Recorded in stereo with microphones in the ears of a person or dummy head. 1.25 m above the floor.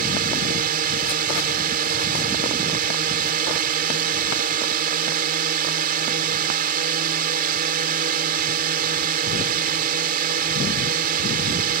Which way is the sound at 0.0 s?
45° right (ahead or behind).